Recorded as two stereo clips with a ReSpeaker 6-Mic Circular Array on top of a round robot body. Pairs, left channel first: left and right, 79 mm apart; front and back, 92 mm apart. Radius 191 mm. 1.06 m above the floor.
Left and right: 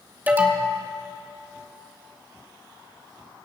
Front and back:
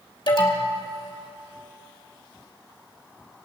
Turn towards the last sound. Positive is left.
turn(degrees=-25)